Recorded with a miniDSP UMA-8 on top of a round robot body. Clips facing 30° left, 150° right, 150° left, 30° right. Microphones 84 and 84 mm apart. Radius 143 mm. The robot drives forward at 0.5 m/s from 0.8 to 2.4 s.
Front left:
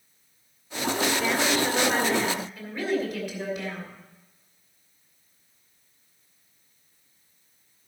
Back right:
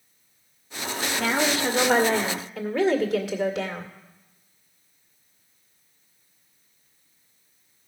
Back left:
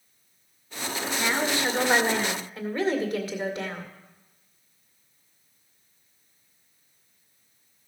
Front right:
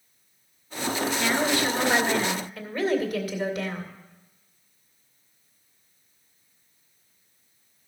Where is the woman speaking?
140° right, 1.6 m; by 3.9 s 150° right, 2 m.